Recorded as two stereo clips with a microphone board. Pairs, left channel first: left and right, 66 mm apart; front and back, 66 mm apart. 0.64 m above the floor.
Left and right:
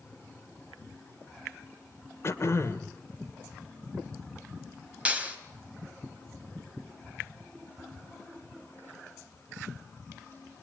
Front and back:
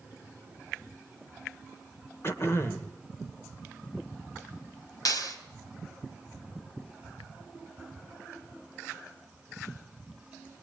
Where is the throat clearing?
45° left, 2 m.